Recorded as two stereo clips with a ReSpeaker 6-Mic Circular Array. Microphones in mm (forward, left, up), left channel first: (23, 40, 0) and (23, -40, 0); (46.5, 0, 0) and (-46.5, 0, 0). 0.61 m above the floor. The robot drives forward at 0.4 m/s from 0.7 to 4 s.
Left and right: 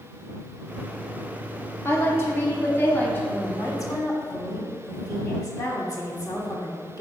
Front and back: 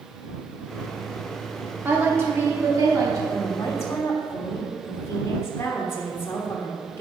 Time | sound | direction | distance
1.9 | a woman speaking | 125° left | 1.1 m
3.3 | a woman speaking | 45° left | 1.6 m